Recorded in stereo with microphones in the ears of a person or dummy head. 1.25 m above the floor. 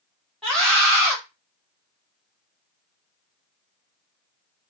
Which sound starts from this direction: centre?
A scream, at 0.4 s.